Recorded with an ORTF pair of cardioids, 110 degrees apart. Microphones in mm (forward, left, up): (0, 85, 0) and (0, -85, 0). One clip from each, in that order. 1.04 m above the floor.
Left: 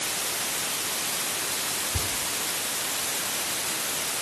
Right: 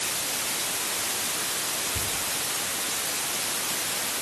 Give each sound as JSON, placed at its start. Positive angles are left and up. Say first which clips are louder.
{"t": 1.9, "sound": "whispering", "louder": "left 1 dB", "azimuth_deg": 65, "distance_m": 9.0}